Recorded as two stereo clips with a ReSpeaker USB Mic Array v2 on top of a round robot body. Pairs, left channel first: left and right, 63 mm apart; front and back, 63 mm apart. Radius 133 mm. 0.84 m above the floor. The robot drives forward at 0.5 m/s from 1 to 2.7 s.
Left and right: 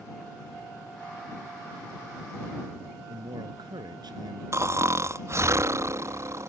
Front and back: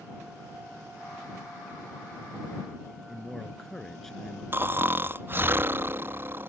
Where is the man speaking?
85° right.